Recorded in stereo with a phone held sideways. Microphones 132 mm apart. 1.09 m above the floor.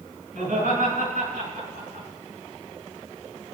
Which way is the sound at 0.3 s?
85° right.